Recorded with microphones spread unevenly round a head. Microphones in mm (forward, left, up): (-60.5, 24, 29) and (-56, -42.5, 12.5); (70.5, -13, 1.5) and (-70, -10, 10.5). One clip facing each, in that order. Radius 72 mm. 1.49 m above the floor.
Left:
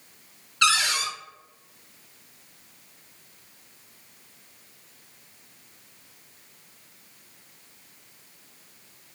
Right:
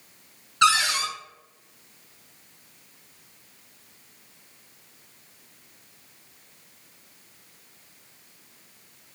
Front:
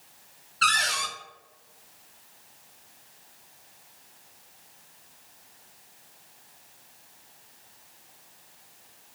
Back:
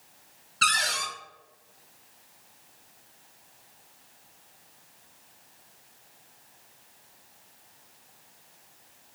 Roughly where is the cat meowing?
No cat meowing in this recording.